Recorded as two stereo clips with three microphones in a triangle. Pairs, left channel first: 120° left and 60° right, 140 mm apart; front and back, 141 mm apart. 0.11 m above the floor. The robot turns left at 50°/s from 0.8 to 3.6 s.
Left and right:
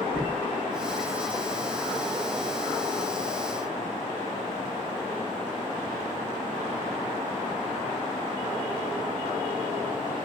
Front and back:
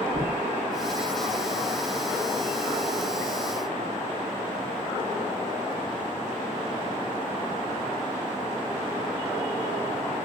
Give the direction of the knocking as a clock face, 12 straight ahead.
6 o'clock.